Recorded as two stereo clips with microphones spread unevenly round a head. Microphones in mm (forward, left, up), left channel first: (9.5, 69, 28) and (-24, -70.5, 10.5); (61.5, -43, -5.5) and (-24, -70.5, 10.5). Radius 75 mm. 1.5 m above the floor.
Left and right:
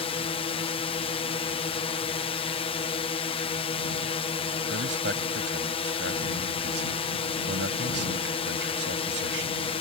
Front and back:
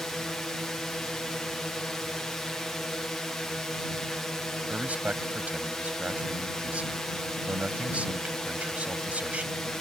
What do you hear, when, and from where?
0.0 s a drone: 85° left
4.7 s a man speaking: 90° right